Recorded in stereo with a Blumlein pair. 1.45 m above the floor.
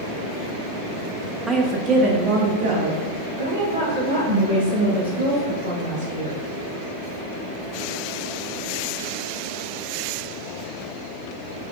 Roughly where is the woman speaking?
Ahead.